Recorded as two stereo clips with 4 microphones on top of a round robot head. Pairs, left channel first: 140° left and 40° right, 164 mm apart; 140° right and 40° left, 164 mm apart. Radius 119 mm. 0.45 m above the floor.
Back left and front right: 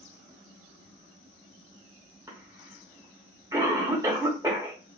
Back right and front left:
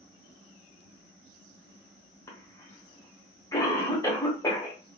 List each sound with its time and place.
2.3 s a cough: 90° right, 1.4 m